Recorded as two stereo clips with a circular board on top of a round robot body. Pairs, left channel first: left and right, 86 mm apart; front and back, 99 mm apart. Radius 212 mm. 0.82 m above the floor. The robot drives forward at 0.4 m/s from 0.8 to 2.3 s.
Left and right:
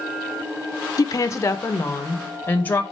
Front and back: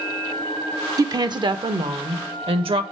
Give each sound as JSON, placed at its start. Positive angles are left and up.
{"t": 1.0, "sound": "a woman speaking", "azimuth_deg": 130, "distance_m": 0.6}